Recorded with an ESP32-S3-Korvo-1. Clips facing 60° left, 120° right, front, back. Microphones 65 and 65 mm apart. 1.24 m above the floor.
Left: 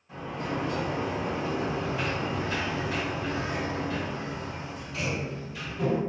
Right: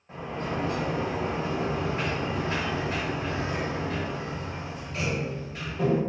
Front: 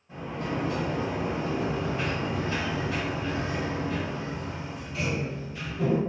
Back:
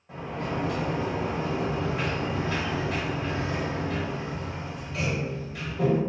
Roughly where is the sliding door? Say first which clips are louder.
Right 1 dB, even; behind.